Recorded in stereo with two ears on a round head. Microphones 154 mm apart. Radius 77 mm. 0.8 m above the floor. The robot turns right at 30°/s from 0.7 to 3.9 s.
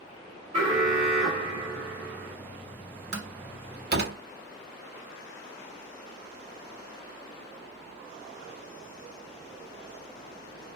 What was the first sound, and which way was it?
An alarm, 30° right (ahead or behind).